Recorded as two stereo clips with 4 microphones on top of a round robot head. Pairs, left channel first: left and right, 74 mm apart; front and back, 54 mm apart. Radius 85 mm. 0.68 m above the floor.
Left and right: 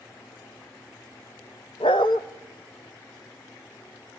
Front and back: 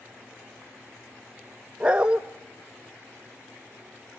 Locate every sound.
1.8 s a dog barking: 115° left, 0.5 m